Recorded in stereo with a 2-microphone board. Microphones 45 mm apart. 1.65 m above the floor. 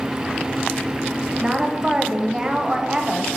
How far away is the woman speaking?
About 1.0 m.